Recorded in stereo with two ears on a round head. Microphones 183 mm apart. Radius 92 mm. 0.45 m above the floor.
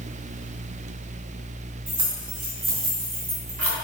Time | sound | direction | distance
1.9 | keys jangling | 25° right (ahead or behind) | 3.5 m